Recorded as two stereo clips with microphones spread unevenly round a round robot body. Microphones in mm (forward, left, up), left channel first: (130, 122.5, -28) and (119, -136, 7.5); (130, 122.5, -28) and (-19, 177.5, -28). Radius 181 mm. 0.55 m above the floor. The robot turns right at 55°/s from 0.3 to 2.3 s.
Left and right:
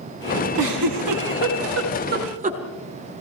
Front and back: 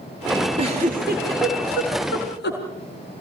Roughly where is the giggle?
Behind right.